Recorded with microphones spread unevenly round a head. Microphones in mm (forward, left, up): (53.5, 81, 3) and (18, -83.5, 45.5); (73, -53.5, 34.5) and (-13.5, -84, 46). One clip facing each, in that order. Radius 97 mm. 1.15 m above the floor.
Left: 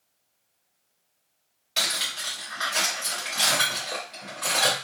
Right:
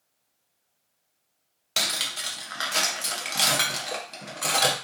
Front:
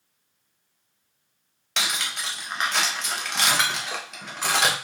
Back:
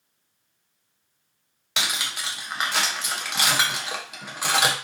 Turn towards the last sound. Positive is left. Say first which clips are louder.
# right 1 dB, even
turn(degrees=-80)